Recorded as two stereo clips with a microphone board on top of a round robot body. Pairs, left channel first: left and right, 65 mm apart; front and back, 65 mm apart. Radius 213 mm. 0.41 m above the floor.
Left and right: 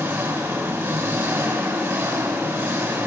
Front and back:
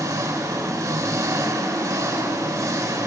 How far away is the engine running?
About 4 m.